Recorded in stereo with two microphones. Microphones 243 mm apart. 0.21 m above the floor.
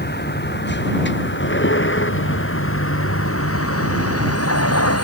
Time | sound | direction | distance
0.0 | a vehicle | 45° left (ahead or behind) | ?